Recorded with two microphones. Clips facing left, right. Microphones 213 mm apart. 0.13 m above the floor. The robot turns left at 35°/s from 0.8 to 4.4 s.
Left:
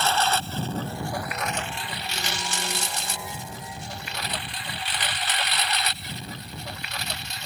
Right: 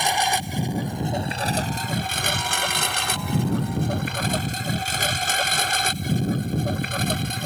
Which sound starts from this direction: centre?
A lawn mower, at 0.0 s.